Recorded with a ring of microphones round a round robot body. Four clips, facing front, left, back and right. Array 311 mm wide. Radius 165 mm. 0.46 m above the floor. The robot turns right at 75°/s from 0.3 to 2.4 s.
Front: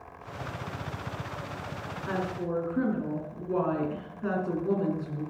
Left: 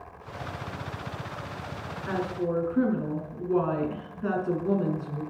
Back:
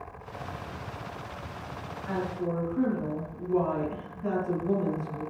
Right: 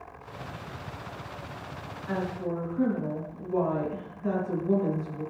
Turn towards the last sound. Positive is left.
turn(degrees=65)